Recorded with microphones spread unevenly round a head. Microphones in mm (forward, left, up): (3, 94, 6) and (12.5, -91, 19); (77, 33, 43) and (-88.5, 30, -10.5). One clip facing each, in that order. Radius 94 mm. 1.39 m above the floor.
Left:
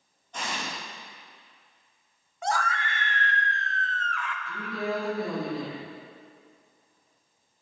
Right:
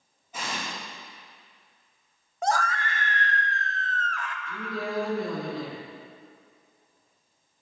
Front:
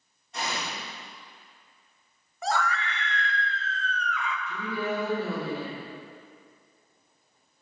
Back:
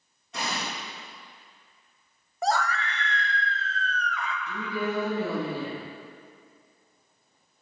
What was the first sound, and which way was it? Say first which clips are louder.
An explosion: even, even; 170° right.